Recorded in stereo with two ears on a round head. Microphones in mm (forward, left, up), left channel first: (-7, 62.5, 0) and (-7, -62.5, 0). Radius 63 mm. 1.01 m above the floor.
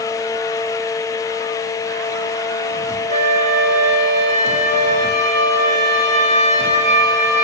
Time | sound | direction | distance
3.1 | a flute | 60° right (ahead or behind) | 1.5 m